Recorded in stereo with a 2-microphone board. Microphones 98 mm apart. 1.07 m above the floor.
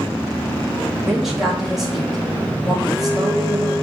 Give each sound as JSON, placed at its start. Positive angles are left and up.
{"t": 1.0, "sound": "a woman speaking", "side_deg": -5, "distance_m": 1.9}